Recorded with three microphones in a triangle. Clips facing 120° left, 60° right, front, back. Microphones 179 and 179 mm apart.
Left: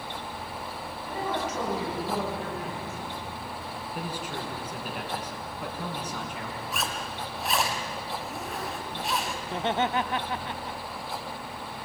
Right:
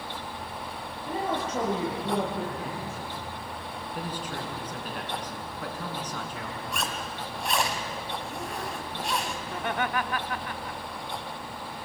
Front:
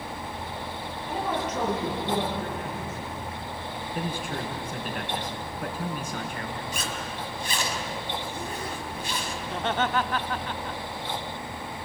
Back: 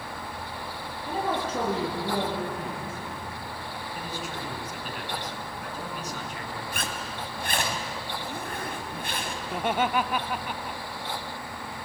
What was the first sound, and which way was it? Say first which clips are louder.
A man speaking: right 1 dB, back 1 dB; 120° right.